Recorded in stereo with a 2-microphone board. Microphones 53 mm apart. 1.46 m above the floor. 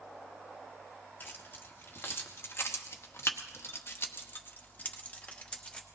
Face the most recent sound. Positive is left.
turn(degrees=20)  # may be behind; listen again after turning